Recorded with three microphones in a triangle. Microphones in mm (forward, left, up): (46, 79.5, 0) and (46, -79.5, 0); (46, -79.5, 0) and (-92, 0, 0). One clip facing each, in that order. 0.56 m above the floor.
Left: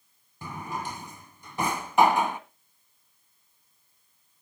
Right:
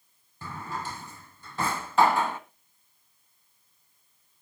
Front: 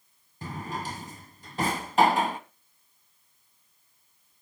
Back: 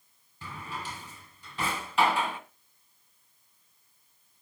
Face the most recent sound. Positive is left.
turn(degrees=15)